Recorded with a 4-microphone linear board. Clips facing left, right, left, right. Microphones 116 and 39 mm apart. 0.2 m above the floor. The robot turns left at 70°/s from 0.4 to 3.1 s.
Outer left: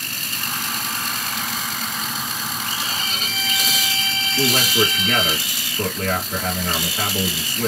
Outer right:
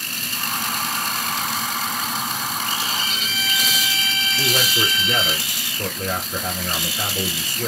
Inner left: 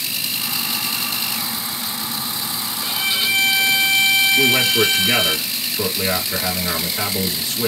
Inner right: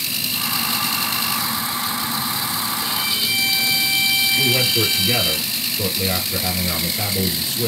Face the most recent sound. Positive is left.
turn(degrees=55)  # may be behind; listen again after turning